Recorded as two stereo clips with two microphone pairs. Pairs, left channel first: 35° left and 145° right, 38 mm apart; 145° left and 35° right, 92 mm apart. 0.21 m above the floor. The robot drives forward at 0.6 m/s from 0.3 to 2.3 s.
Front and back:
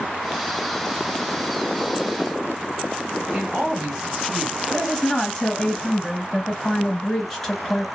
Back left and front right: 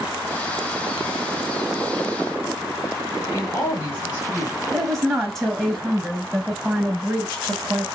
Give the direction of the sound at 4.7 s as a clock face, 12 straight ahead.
10 o'clock.